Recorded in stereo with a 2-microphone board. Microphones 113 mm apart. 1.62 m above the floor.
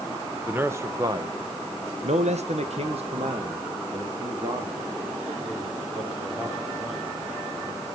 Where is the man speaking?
15° right (ahead or behind), 1.8 m; by 7.1 s 30° right (ahead or behind), 5.5 m.